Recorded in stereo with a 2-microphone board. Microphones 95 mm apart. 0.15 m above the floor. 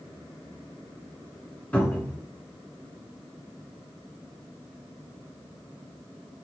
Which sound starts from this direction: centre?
A cupboard door, at 1.7 s.